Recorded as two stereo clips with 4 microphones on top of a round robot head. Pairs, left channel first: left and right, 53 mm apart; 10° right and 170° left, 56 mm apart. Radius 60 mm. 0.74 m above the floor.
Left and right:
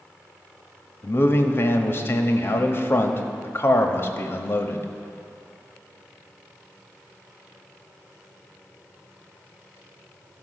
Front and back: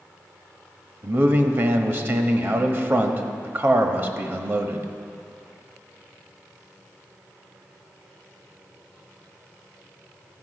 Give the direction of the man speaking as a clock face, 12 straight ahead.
8 o'clock.